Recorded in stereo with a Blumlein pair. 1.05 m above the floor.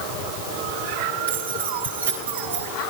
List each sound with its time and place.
1.3 s keys jangling: 70° right, 9 m